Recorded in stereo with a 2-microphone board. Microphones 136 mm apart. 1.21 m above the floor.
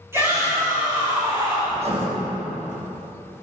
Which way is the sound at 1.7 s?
45° right (ahead or behind).